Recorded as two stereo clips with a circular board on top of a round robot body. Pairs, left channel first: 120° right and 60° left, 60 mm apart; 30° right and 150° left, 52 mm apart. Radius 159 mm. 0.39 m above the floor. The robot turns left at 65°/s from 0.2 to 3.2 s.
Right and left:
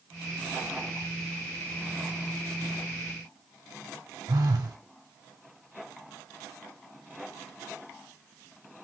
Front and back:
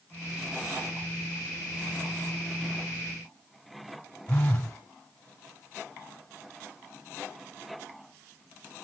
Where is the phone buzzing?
40° left, 0.5 m.